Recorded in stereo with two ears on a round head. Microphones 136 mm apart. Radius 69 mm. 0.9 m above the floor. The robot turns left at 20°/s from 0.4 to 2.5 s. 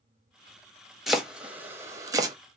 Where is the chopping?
Centre (ahead or behind), 0.6 m; by 2.4 s 25° right (ahead or behind), 0.6 m.